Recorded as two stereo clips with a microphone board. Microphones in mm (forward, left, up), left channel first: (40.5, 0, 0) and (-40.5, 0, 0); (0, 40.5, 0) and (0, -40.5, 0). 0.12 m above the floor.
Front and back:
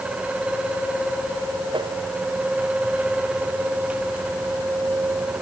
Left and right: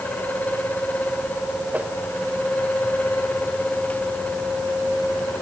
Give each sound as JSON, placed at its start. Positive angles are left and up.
{"t": 1.7, "sound": "a whoosh", "azimuth_deg": -160}